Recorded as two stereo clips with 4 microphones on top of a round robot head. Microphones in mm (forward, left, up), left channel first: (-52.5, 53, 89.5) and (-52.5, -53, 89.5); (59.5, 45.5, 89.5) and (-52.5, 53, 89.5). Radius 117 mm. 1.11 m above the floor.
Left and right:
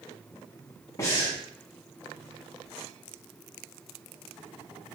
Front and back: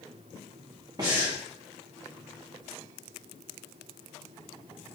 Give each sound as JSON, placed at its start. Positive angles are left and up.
{"t": 1.0, "sound": "breathing", "azimuth_deg": 140, "distance_m": 0.7}